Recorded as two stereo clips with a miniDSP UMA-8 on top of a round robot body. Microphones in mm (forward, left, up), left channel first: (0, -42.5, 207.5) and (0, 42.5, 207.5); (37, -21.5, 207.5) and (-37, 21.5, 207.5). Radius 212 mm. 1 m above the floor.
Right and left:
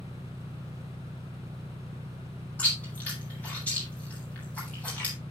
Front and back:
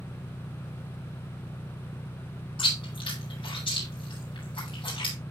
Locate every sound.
0.0 s an engine running: 35° left, 0.9 m
2.6 s chewing: 20° right, 7.5 m